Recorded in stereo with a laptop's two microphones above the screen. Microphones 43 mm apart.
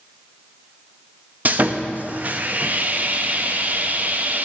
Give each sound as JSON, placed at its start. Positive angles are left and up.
{"t": 1.4, "sound": "sawing", "side_deg": -40, "distance_m": 0.6}